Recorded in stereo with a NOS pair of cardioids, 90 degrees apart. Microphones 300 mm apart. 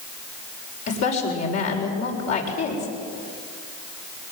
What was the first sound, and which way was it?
A woman speaking, 60° left.